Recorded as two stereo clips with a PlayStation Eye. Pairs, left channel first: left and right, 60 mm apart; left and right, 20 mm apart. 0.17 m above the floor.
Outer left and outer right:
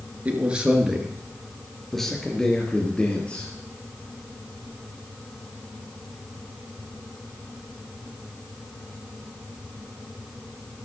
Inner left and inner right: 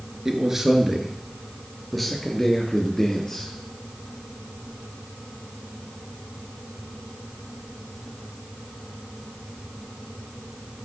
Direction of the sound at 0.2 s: 25° right (ahead or behind).